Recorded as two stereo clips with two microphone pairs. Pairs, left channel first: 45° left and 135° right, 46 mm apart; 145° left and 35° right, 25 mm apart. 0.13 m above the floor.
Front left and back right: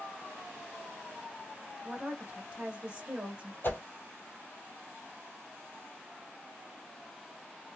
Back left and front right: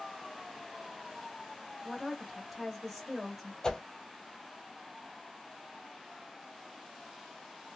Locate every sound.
1.8 s a woman speaking: 125° right, 1.8 m
3.6 s a whoosh: 80° left, 1.0 m